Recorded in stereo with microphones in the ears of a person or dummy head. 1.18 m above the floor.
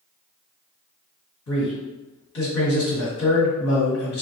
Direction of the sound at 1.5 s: 75° left (ahead or behind).